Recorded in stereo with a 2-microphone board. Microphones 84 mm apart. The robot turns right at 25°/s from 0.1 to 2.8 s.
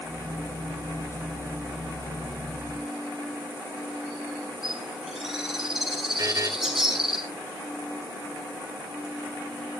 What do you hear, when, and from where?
4.6 s a bird: 5° right (ahead or behind), 8.5 m
6.2 s a buzzer: 45° right (ahead or behind), 2 m